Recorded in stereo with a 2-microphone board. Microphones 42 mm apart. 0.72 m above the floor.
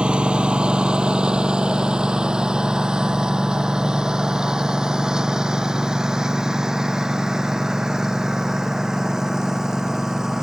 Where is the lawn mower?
25° right (ahead or behind); by 10.4 s 10° right (ahead or behind).